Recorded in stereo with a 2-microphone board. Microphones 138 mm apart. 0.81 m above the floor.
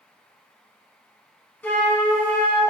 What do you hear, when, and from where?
1.6 s a flute: 10° left (ahead or behind), 0.7 m